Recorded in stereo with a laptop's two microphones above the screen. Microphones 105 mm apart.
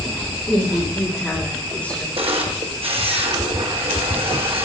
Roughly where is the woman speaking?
Centre.